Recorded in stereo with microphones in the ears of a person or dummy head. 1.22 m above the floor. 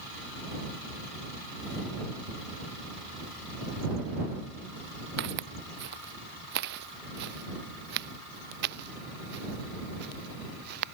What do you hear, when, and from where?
5.2 s footsteps: 65° right (ahead or behind); by 10.8 s 60° right (ahead or behind)